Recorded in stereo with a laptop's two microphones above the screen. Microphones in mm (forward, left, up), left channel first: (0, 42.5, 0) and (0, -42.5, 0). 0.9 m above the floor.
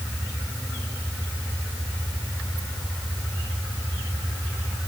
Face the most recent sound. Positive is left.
No sound to turn to.